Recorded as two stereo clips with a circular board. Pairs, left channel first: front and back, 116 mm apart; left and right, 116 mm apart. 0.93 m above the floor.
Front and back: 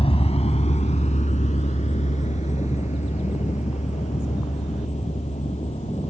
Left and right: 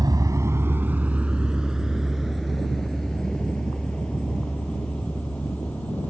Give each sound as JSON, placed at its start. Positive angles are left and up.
{"t": 0.0, "sound": "a vehicle", "azimuth_deg": -35}